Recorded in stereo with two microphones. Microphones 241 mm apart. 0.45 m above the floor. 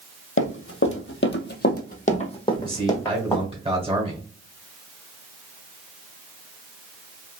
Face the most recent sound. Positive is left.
turn(degrees=-20)  # may be behind; listen again after turning